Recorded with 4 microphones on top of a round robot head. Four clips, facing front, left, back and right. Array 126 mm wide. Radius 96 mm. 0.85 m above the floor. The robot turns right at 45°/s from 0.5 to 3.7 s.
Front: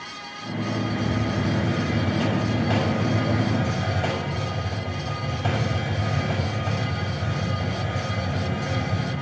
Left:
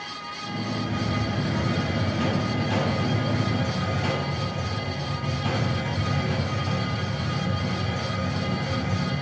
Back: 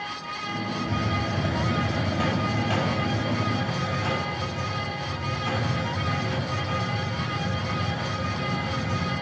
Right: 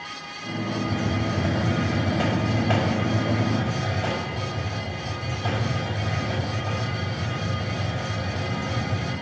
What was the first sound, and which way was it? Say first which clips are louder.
A hiss: right 2 dB, front 2 dB; 155° right.